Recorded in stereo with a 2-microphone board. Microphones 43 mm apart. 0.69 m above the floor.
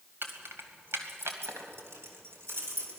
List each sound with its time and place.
0.2 s keys jangling: 55° right (ahead or behind), 2.5 m; by 3.0 s 75° right (ahead or behind), 4 m